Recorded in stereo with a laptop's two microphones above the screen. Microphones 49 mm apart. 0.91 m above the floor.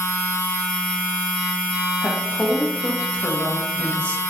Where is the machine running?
50° left (ahead or behind), 1.0 m.